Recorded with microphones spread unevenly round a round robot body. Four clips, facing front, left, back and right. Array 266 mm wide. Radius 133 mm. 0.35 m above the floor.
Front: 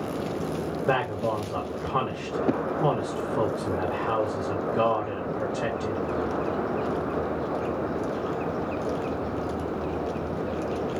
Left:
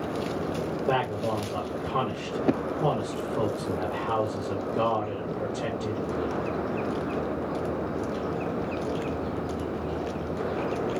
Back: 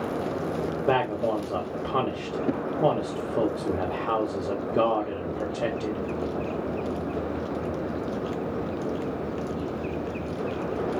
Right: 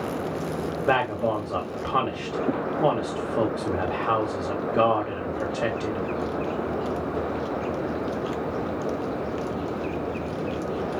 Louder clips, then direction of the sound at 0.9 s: Right 4 dB, back 2 dB; 155° right.